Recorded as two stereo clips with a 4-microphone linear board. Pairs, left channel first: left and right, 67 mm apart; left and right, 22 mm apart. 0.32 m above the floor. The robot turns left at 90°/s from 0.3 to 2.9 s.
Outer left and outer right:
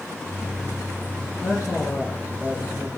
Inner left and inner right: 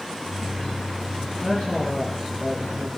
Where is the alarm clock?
No alarm clock in this recording.